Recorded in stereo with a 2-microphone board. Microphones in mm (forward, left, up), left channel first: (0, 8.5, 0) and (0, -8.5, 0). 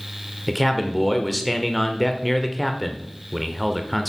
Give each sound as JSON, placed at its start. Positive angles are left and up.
{"t": 0.5, "sound": "a man speaking", "side_deg": 0, "distance_m": 1.0}